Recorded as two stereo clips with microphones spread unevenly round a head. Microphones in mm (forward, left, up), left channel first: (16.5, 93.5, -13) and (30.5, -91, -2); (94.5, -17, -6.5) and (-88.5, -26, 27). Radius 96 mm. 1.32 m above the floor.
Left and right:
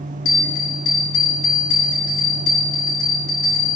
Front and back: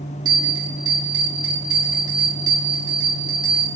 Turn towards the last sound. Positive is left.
turn(degrees=115)